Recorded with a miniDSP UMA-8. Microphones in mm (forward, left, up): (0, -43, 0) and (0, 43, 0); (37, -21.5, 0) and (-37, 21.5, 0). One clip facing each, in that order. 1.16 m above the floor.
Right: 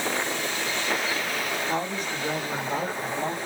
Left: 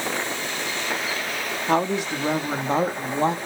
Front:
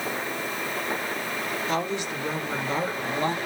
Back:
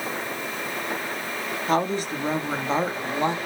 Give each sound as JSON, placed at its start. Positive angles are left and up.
{"t": 1.7, "sound": "a woman speaking", "azimuth_deg": 105, "distance_m": 1.9}